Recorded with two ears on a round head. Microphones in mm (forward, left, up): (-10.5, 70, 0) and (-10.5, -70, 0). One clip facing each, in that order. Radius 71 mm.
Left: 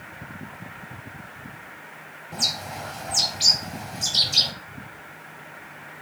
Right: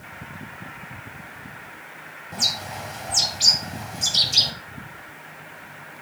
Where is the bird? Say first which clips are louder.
Even; centre (ahead or behind), 0.9 m.